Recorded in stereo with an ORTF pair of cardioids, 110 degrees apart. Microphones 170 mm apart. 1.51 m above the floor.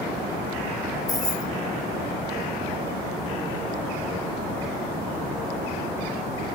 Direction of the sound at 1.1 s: 25° left.